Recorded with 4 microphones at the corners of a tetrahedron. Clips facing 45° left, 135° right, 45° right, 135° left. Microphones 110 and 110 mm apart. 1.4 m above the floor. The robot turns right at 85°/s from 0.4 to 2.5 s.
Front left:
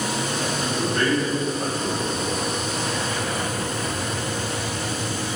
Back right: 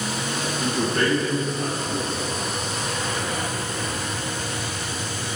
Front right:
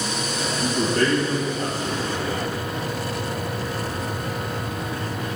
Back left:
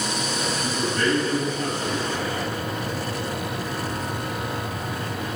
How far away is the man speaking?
About 1.9 m.